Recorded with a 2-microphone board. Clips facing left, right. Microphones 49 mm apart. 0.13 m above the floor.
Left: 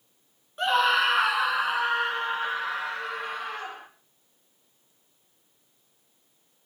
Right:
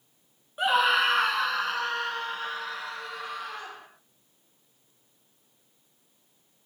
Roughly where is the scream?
Centre.